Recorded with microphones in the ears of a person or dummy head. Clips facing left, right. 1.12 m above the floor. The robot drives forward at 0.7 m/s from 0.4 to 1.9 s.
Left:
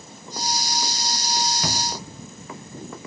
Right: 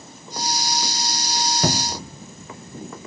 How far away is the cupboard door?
About 1.1 m.